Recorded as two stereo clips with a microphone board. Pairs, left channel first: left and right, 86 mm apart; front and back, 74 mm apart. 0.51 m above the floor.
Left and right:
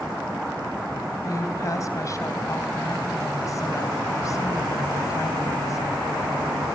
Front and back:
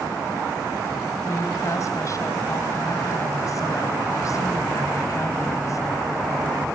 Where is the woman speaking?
45° left, 3.5 m.